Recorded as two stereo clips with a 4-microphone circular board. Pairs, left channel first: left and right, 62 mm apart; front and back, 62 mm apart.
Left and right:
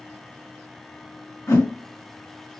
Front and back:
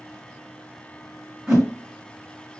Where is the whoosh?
105° left, 2 m.